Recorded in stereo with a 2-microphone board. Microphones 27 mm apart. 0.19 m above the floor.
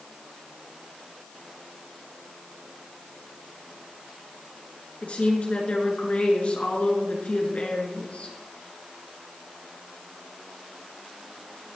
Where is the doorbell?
I don't hear a doorbell.